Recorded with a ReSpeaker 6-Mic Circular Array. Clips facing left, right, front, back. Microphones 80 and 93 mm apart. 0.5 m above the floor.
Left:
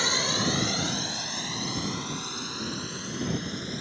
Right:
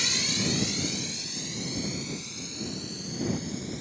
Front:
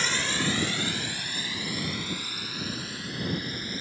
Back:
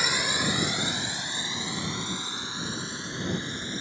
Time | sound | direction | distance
0.0 | a drone | 105° left | ?